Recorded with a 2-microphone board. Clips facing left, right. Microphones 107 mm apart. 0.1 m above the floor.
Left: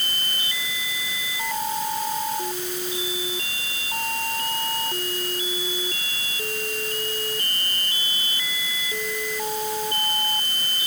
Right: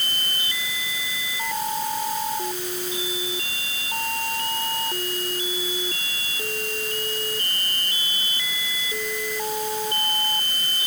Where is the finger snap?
No finger snap in this recording.